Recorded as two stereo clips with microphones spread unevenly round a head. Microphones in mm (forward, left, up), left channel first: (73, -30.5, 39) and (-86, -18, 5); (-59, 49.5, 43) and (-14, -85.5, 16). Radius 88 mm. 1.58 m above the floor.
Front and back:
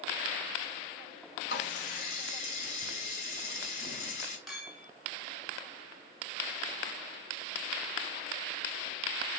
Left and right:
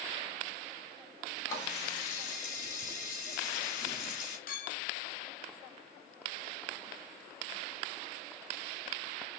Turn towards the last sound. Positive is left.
turn(degrees=80)